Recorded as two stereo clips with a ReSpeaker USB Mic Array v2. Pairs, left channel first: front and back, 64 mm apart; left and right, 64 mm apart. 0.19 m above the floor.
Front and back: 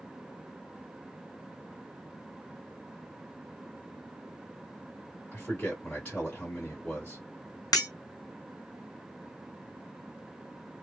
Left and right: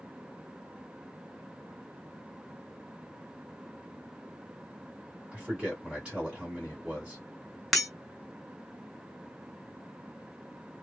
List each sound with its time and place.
5.3 s a man speaking: 35° right, 1.5 m
7.7 s breaking glass: 5° left, 0.6 m